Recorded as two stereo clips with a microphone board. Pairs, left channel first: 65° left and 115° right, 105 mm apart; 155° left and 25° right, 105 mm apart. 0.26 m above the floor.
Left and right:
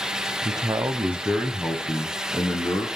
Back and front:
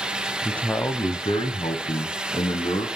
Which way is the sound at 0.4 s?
120° right.